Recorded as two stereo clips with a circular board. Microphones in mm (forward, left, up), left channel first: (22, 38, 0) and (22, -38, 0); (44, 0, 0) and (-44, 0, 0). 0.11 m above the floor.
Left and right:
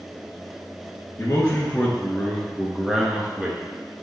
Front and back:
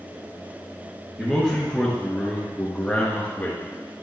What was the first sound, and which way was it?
A man speaking, 105° left.